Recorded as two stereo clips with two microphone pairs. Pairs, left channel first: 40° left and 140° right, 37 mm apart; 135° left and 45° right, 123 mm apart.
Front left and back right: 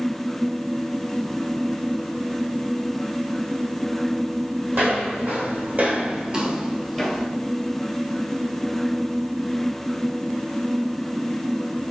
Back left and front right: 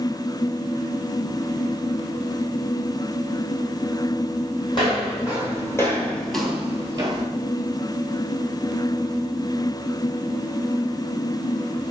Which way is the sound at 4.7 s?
175° right.